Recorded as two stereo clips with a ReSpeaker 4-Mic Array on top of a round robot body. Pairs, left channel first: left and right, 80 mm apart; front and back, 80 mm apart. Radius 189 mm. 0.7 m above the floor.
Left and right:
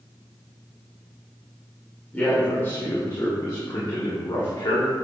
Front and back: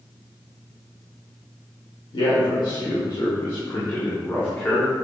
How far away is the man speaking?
About 2.5 m.